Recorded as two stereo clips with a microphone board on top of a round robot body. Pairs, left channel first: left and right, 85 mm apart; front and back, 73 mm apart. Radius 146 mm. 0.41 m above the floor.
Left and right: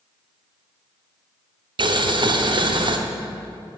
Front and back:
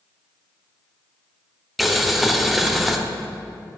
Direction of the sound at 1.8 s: 90° right.